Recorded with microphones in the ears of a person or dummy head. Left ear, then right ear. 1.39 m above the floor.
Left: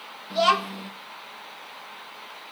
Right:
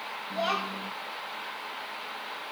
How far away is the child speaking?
About 1.4 m.